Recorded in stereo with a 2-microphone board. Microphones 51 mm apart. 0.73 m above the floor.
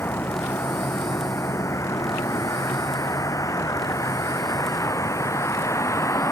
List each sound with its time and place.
0.0 s a vehicle: 50° left (ahead or behind); by 6.3 s 65° left (ahead or behind)